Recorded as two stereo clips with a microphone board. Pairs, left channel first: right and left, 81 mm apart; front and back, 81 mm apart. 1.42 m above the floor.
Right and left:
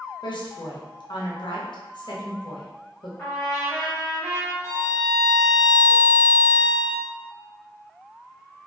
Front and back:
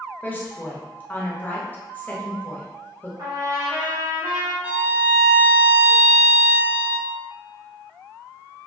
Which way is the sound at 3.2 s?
170° right.